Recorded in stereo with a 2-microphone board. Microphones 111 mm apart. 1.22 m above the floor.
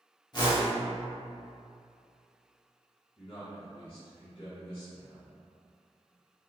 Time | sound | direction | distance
0.3 | a whoosh | 40° left (ahead or behind) | 0.7 m
3.2 | a man speaking | 50° left (ahead or behind) | 1.4 m